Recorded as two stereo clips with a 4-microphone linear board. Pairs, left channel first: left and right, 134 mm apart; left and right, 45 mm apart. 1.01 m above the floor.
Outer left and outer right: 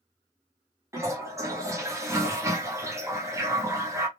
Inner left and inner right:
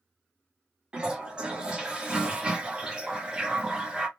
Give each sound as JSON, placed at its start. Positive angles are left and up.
{"t": 0.9, "sound": "a toilet flushing", "side_deg": -20, "distance_m": 0.8}